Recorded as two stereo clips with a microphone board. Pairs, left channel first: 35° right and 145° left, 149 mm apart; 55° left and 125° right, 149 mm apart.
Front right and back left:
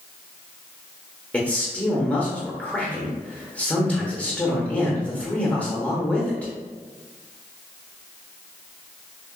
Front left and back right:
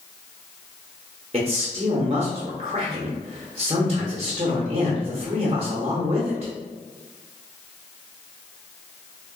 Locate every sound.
1.3 s a man speaking: 110° right, 0.7 m